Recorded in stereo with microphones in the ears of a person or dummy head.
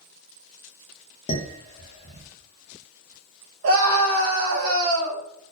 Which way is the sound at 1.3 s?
35° left (ahead or behind).